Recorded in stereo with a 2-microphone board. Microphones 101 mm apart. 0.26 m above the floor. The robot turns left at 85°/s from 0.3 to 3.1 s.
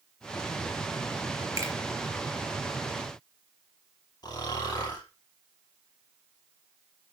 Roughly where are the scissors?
No scissors in this recording.